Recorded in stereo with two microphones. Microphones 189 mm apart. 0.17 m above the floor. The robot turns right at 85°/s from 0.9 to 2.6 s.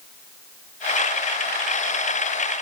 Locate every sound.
Only background noise.